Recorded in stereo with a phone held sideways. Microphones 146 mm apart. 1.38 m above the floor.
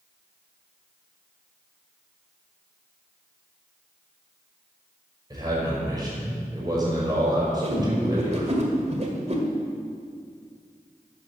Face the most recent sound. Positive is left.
turn(degrees=-50)  # may be behind; listen again after turning